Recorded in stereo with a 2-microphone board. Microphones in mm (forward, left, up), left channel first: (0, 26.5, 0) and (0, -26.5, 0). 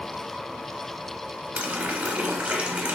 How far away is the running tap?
About 0.7 m.